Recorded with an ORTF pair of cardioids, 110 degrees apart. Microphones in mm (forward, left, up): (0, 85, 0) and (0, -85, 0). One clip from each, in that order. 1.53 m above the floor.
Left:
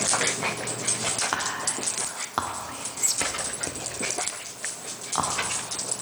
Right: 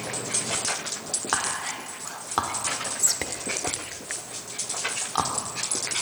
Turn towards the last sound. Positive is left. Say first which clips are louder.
# even
turn(degrees=-5)